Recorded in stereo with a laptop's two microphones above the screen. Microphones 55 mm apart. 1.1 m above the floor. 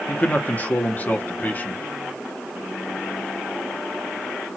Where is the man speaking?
30° left (ahead or behind), 1.2 m.